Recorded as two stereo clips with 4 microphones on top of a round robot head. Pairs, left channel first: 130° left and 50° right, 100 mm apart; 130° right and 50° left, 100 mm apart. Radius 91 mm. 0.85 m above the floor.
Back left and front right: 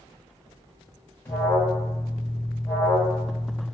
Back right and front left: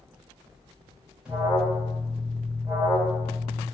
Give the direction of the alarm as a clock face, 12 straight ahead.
8 o'clock.